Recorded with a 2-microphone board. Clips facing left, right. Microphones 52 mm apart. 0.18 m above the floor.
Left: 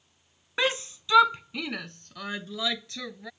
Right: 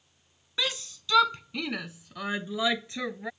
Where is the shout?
35° left (ahead or behind); by 3.3 s 25° right (ahead or behind).